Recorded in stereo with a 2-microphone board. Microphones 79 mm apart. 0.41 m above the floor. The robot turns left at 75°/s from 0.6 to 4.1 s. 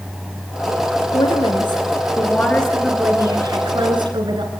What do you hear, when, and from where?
1.1 s a woman speaking: 125° left, 4.5 m; by 4.5 s 100° right, 4.5 m